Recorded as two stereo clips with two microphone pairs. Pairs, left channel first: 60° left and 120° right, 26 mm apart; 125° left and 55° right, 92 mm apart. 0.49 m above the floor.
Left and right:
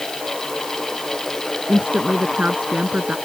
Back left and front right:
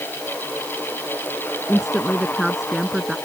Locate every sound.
1.7 s a woman speaking: 145° right; by 3.2 s 140° right